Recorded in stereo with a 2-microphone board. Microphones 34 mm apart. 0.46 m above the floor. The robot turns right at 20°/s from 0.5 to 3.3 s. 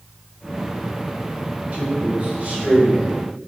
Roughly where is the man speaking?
Right.